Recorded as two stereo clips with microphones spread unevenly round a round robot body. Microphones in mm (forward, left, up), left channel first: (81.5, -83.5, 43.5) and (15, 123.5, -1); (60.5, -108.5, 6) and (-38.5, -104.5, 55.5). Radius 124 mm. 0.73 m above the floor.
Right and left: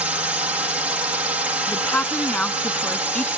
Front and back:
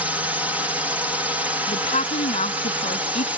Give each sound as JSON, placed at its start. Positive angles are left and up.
{"t": 0.0, "sound": "a drone", "azimuth_deg": 60}
{"t": 1.7, "sound": "a woman speaking", "azimuth_deg": 10}